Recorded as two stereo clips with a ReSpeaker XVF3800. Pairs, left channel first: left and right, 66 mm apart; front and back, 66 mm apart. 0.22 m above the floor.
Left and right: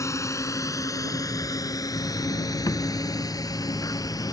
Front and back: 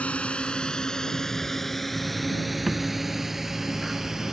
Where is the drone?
70° left; by 4.3 s 100° left.